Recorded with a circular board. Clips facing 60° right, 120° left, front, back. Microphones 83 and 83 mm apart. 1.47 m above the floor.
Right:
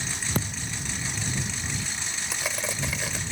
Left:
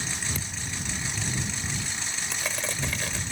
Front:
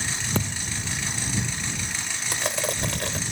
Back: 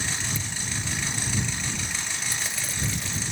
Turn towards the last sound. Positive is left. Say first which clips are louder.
# right 1 dB, front 6 dB
turn(degrees=25)